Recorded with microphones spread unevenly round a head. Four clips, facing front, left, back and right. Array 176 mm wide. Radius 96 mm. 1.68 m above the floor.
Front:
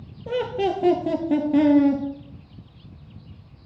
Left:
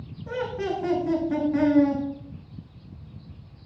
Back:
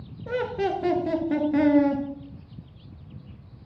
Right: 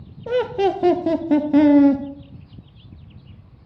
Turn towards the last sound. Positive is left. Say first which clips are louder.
# right 9 dB, front 2 dB
turn(degrees=-75)